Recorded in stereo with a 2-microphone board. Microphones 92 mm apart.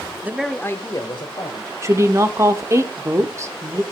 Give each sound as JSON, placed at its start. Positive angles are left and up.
{"t": 0.2, "sound": "a man speaking", "side_deg": -25, "distance_m": 0.8}
{"t": 1.8, "sound": "a woman speaking", "side_deg": -30, "distance_m": 1.1}